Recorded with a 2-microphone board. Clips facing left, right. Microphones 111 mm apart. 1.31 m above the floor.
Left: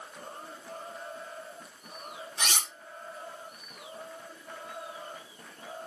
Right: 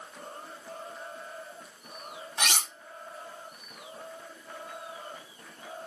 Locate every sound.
2.4 s cutlery clinking: 60° right (ahead or behind), 0.7 m